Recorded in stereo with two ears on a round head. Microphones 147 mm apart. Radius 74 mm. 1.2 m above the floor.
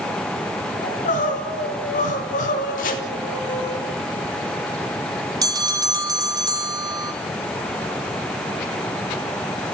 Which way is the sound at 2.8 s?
50° left (ahead or behind).